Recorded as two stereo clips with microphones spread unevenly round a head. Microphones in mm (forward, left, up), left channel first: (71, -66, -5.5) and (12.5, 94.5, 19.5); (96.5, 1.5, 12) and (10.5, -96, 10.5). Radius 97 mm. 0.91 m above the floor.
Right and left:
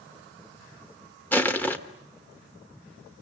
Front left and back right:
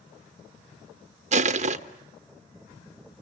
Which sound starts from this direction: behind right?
Crushing, at 1.3 s.